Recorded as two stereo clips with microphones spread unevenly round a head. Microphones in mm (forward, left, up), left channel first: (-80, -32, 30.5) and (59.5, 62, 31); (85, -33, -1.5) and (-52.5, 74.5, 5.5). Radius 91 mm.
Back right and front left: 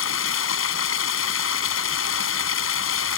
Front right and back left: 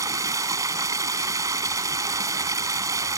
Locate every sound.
0.0 s running water: 145° right